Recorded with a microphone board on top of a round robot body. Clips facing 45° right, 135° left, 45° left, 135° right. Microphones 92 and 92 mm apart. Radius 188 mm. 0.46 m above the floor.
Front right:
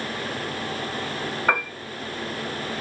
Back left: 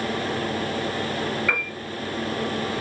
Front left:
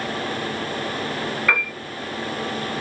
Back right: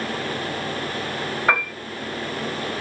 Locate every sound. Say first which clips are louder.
1.5 s a piano: front right 4 dB, back right 3 dB; 80° right, 2 m